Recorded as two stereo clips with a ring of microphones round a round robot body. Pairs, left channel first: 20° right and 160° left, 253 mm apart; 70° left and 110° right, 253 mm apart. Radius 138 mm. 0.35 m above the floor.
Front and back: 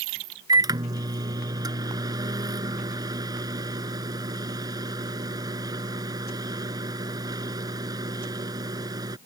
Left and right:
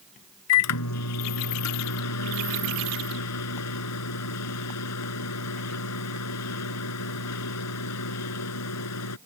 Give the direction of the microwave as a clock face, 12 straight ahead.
9 o'clock.